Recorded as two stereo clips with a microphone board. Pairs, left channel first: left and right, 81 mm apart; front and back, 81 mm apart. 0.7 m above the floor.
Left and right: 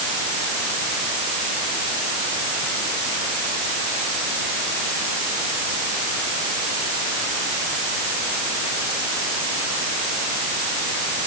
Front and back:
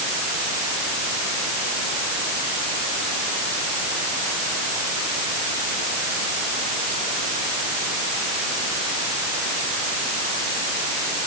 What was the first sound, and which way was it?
Only background noise.